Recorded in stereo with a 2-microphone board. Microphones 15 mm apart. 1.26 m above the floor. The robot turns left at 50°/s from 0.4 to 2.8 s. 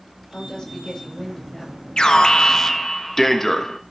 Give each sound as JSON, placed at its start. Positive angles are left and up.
{"t": 0.3, "sound": "a woman speaking", "azimuth_deg": 75, "distance_m": 5.0}
{"t": 2.0, "sound": "an alarm", "azimuth_deg": 65, "distance_m": 1.3}